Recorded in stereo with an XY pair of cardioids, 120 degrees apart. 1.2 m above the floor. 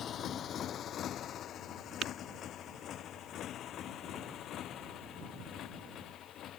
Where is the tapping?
60° right.